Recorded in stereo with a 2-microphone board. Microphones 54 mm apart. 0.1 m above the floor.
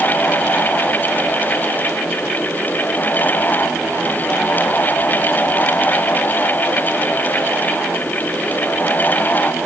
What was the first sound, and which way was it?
Only background noise.